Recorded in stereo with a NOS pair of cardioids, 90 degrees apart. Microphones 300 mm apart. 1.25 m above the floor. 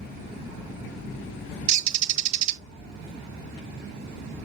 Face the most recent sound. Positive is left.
turn(degrees=-70)